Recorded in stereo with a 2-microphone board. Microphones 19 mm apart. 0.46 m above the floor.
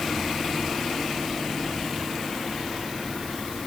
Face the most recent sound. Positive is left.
No sound to turn to.